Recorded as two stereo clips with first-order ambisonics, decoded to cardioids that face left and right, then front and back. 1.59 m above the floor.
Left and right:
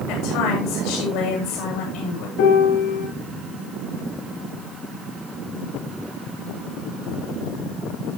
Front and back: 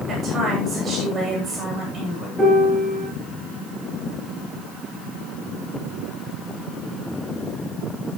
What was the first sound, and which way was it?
A woman speaking, 110° left.